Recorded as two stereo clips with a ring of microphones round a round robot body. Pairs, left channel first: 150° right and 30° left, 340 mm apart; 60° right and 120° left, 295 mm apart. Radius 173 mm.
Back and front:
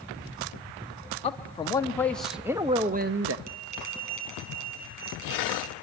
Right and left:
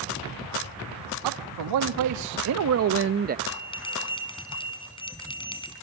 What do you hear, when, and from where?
1.2 s a man speaking: 140° left, 1.3 m; by 3.4 s 65° left, 0.7 m
3.5 s a bell: 15° left, 4 m